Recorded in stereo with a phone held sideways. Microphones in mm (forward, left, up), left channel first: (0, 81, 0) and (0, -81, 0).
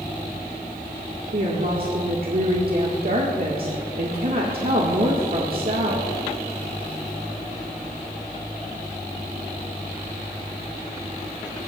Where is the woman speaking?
65° right (ahead or behind), 1.7 m.